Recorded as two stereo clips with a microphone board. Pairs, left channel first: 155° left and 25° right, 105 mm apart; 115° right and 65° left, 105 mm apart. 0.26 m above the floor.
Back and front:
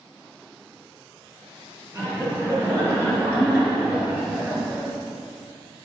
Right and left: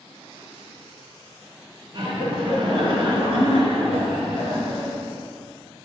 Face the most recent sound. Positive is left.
turn(degrees=50)